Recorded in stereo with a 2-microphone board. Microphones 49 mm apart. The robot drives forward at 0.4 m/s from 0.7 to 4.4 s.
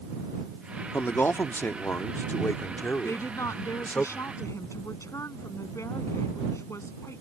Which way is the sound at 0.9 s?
55° left (ahead or behind).